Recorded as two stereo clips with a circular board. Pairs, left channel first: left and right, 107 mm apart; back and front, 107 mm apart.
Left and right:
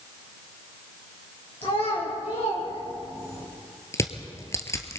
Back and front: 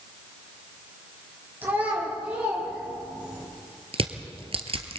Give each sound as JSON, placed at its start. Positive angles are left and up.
{"t": 1.6, "sound": "a child speaking", "azimuth_deg": 70, "distance_m": 7.5}
{"t": 3.9, "sound": "crushing", "azimuth_deg": 25, "distance_m": 1.5}